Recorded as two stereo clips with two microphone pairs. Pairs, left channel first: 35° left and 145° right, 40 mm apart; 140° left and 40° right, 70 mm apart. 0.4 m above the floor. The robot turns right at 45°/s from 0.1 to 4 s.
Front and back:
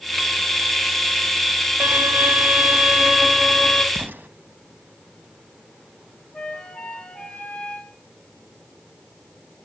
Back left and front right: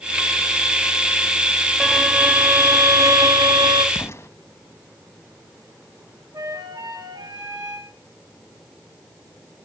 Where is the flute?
40° right, 5 m.